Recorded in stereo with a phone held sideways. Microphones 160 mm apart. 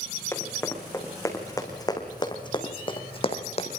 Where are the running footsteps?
15° left (ahead or behind), 4.5 m; by 3.8 s 45° left (ahead or behind), 2.5 m.